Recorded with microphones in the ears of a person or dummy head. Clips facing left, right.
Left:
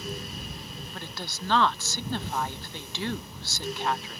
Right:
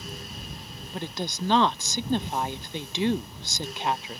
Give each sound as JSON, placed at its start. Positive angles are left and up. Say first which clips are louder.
{"t": 0.9, "sound": "a woman speaking", "louder": "right 10 dB", "side_deg": -15}